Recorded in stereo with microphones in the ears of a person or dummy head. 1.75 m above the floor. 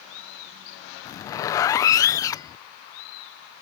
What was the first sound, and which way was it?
A zipper, 15° left (ahead or behind).